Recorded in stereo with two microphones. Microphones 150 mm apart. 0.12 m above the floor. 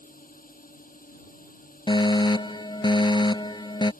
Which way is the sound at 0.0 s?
70° left (ahead or behind).